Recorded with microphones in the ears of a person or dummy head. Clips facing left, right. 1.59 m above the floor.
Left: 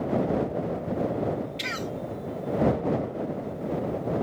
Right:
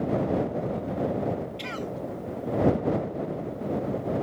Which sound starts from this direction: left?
A cough, at 1.6 s.